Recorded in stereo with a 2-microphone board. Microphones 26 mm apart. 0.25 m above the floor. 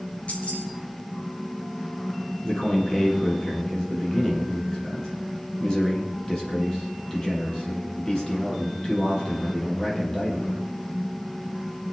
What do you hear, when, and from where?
0.3 s keys jangling: 55° left (ahead or behind), 3.5 m
2.4 s a man speaking: 25° left (ahead or behind), 5.5 m